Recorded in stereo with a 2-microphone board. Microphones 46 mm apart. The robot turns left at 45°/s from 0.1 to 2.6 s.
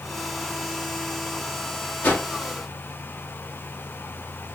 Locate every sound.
2.0 s a whoosh: 50° left (ahead or behind), 1.6 m; by 2.3 s 40° left (ahead or behind), 1.6 m